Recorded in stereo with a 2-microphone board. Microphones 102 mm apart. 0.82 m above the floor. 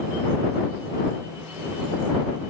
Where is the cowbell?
No cowbell in this recording.